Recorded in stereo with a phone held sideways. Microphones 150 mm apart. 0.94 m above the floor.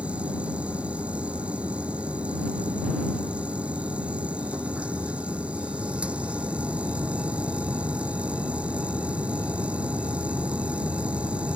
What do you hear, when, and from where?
0.0 s a machine running: 10° right (ahead or behind)